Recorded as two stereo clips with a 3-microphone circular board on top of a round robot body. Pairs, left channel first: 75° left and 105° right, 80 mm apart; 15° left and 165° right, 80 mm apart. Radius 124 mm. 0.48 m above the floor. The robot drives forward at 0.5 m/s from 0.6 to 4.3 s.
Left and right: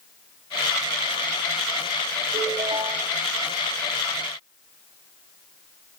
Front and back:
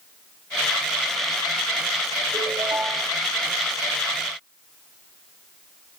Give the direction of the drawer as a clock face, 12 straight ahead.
No drawer in this recording.